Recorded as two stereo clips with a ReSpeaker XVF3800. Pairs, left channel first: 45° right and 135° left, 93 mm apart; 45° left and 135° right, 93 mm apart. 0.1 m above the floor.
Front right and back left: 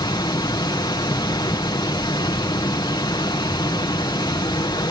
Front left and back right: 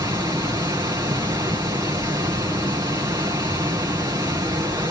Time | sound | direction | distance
0.0 | running water | 85° right | 2.5 m